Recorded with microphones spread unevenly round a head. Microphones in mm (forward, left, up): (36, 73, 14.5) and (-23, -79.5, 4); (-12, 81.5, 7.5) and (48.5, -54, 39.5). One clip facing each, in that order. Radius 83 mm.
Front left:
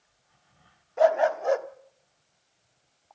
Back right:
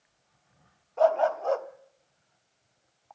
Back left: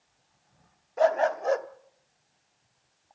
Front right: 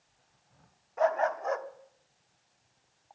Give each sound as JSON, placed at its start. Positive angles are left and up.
{"t": 1.0, "sound": "a dog barking", "azimuth_deg": 100, "distance_m": 0.9}